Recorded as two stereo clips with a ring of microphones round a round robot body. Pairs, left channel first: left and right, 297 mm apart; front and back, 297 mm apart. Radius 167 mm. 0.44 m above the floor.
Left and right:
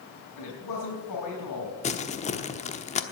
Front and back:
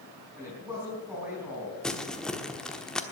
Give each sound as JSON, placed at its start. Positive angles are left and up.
{"t": 0.4, "sound": "a man speaking", "azimuth_deg": 95, "distance_m": 4.5}
{"t": 1.8, "sound": "crumpling", "azimuth_deg": 85, "distance_m": 1.1}